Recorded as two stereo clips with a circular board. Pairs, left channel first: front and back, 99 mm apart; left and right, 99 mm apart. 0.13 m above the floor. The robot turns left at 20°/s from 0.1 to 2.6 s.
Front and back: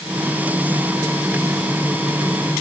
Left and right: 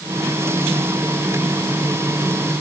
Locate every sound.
Only background noise.